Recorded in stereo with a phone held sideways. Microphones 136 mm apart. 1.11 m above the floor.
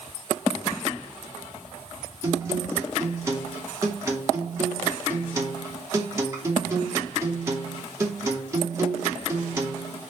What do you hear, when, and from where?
2.2 s a guitar: 20° right (ahead or behind), 2.5 m